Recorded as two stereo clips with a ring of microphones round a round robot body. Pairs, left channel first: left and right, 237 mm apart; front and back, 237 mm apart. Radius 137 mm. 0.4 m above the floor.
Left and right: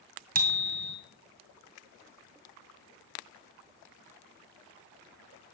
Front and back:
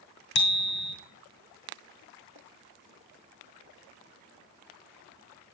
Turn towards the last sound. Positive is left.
turn(degrees=-40)